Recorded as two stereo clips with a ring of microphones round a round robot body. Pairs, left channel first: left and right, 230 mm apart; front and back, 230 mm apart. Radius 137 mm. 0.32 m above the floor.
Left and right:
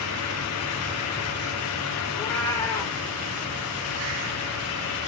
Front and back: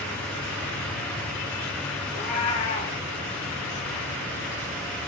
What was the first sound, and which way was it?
A cat meowing, 10° left.